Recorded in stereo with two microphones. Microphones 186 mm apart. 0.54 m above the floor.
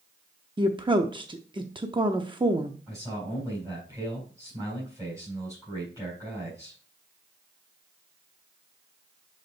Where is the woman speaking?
25° right (ahead or behind), 0.6 m.